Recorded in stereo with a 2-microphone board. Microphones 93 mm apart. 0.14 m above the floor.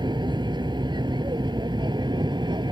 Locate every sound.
0.0 s an aircraft: 55° right (ahead or behind)